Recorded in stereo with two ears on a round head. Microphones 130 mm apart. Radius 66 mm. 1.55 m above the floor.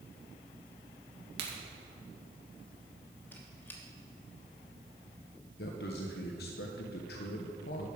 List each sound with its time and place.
1.4 s a crack: 85° right, 2.5 m
3.3 s a squeak: 15° left (ahead or behind), 1.2 m
5.6 s a man speaking: 75° left (ahead or behind), 1.0 m